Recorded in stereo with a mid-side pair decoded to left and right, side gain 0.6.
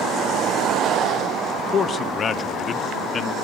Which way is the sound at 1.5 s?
40° left.